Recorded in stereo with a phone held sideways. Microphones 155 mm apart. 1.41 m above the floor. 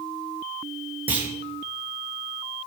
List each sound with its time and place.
1.1 s a clunk: 10° right (ahead or behind), 1.7 m